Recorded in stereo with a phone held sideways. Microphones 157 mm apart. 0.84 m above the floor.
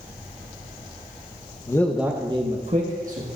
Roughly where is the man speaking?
Left.